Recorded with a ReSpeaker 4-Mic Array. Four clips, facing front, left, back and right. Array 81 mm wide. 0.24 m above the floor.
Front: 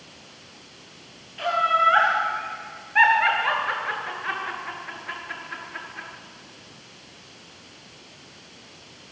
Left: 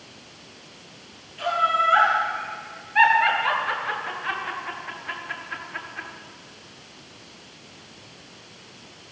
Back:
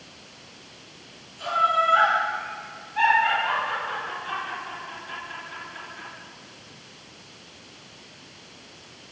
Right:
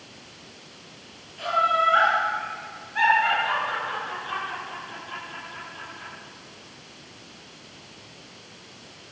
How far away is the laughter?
About 5.5 m.